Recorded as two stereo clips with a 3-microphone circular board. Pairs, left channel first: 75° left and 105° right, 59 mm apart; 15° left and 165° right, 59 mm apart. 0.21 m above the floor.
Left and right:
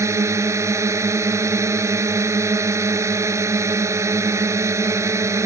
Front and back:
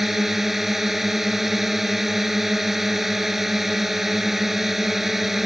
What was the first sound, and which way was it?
A drone, 80° right.